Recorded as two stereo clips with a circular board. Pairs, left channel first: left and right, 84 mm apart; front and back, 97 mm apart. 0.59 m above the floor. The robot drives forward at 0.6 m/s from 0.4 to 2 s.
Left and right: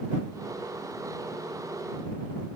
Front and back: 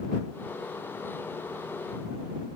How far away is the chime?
I don't hear a chime.